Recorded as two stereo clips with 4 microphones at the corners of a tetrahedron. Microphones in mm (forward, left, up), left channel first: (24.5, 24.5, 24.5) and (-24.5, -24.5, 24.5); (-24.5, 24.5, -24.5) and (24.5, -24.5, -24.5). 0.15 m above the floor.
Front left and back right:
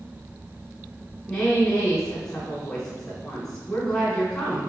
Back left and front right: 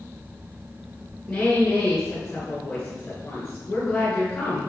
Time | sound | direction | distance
1.3 | a woman speaking | 120° left | 1.6 m